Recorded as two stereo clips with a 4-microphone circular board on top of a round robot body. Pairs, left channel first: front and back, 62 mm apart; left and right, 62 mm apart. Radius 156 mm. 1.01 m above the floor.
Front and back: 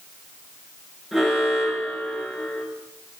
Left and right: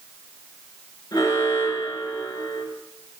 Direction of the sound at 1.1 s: 95° left.